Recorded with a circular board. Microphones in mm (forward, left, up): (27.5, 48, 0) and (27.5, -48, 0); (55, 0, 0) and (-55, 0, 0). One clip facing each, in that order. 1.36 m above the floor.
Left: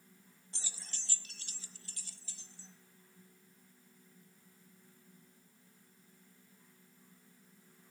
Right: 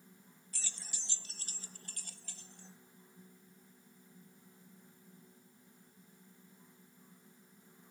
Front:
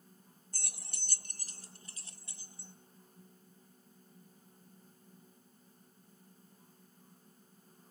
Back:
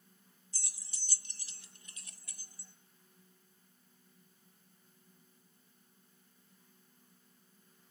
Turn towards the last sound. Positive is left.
turn(degrees=-65)